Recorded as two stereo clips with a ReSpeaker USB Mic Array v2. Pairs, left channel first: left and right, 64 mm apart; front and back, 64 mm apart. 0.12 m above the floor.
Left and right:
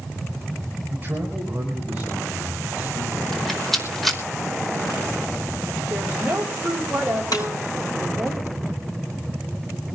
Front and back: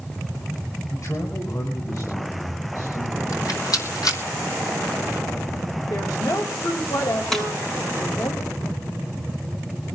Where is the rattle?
5° left, 4.5 m.